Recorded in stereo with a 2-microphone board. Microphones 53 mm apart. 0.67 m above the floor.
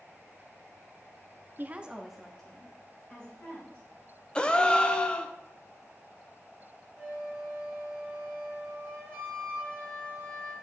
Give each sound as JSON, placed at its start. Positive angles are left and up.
{"t": 1.6, "sound": "a woman speaking", "side_deg": -40, "distance_m": 0.6}
{"t": 4.3, "sound": "a gasp", "side_deg": 20, "distance_m": 0.5}
{"t": 7.0, "sound": "a flute", "side_deg": 20, "distance_m": 2.0}